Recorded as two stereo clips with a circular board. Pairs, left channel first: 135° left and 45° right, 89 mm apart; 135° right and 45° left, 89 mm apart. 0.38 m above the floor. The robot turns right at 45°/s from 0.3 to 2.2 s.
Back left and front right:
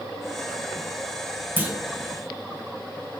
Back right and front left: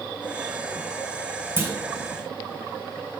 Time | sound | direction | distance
1.6 | a clunk | 5° left | 1.4 m